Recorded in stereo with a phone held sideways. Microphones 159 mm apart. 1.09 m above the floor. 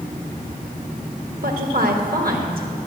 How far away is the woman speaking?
About 1.5 m.